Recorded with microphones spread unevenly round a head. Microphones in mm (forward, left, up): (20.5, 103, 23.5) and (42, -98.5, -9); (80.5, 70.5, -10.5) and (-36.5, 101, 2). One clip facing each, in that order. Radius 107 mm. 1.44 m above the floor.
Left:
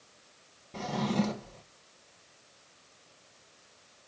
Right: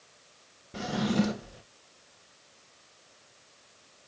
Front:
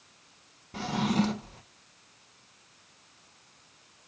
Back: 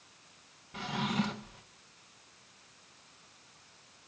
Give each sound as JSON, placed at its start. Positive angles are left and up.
{"t": 0.7, "sound": "a drawer", "azimuth_deg": 0, "distance_m": 0.8}